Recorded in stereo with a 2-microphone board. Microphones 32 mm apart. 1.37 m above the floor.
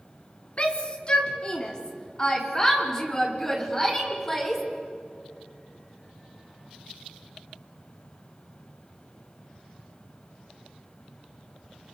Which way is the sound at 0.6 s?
35° left (ahead or behind).